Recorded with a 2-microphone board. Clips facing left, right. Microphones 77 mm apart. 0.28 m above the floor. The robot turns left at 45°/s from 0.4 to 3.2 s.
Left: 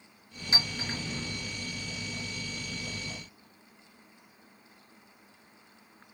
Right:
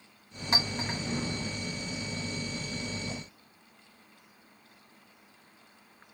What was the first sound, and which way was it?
A clink, 50° right (ahead or behind).